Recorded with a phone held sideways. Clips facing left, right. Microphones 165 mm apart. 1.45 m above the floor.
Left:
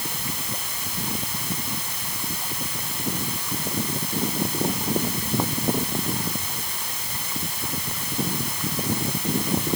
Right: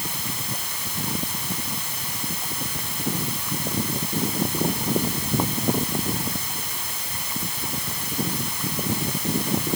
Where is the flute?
No flute in this recording.